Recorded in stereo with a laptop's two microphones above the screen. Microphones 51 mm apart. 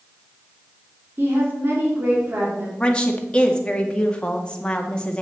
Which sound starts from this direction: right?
A woman speaking, at 1.2 s.